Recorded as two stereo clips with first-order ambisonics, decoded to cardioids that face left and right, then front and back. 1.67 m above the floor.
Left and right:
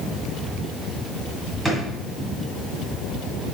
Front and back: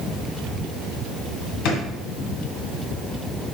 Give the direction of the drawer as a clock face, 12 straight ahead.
12 o'clock.